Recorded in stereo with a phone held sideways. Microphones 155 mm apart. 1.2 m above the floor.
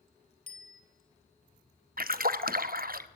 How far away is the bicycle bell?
About 3 m.